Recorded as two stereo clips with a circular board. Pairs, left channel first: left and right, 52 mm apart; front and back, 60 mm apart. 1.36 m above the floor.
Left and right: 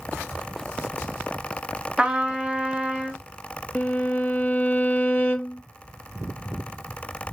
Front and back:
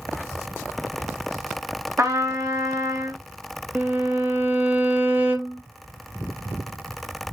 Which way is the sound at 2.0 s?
160° right.